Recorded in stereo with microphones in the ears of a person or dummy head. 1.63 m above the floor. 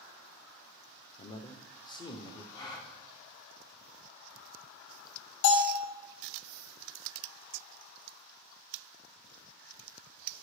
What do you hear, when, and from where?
1.2 s a man speaking: 30° left (ahead or behind), 0.8 m
2.5 s a gasp: 20° left (ahead or behind), 1.5 m
5.4 s a bell: 85° left, 1.8 m